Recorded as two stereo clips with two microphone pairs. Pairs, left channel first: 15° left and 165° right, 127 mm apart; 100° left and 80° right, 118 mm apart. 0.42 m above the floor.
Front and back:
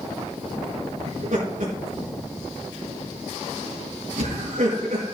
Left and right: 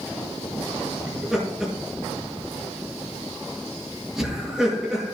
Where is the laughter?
165° right, 5 m.